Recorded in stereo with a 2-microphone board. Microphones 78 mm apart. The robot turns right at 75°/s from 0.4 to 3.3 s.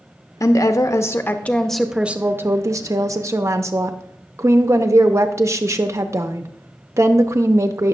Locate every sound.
0.4 s a woman speaking: 75° left, 0.5 m; by 8.0 s 65° right, 0.5 m